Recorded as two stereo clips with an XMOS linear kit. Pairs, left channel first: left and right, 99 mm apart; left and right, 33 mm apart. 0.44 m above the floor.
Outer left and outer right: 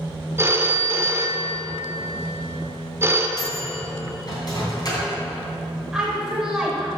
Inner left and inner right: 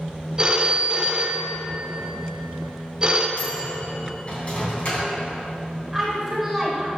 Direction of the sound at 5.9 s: 5° right (ahead or behind).